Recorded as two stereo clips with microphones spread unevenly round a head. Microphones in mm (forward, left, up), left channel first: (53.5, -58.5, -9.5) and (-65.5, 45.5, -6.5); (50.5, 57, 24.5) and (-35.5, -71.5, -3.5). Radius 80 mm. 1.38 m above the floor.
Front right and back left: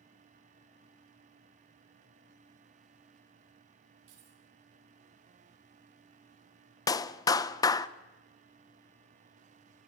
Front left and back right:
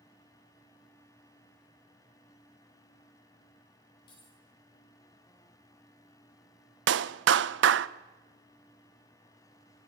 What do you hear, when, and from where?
4.1 s keys jangling: 120° left, 9.5 m
6.9 s a clap: 110° right, 0.7 m